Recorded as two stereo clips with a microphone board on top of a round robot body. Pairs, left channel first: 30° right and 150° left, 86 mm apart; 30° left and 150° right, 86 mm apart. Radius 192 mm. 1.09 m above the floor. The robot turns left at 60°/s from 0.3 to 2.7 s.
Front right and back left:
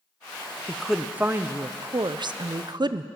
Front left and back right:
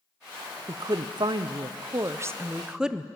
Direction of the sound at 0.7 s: 110° right.